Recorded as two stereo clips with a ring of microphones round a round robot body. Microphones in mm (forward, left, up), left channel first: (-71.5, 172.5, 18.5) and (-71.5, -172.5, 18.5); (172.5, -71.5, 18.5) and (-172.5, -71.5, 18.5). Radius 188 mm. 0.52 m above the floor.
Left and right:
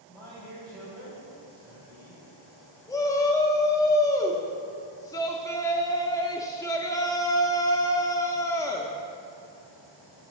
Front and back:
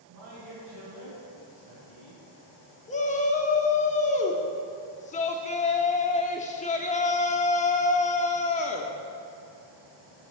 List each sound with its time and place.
0.1 s a man speaking: 170° right, 2.5 m
2.9 s a shout: 25° left, 0.7 m